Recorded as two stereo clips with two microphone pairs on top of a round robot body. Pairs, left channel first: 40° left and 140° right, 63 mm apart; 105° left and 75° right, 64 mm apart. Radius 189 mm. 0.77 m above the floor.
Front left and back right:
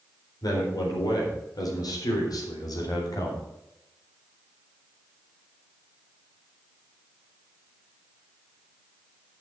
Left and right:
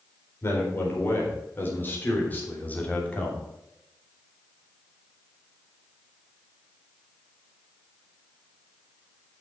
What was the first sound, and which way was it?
A man speaking, 50° left.